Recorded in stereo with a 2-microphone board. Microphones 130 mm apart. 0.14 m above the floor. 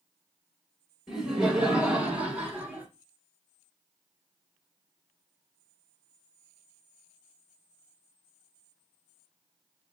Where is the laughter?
Centre (ahead or behind), 1.2 m; by 2.9 s 15° right (ahead or behind), 1.1 m.